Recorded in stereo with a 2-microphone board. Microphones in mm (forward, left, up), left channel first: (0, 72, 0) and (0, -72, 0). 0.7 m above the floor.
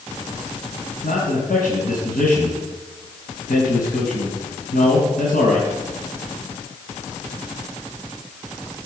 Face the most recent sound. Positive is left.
turn(degrees=80)